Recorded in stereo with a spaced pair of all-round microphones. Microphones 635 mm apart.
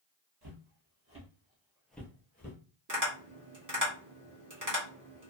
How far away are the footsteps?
About 1.3 m.